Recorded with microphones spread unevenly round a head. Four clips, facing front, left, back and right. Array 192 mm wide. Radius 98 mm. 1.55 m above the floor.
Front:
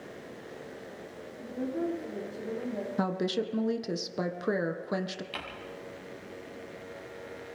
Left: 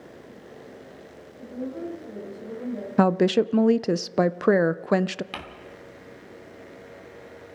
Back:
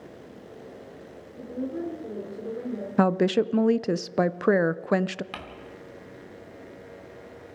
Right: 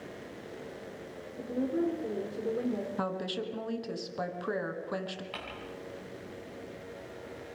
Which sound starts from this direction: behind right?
A woman speaking, at 1.4 s.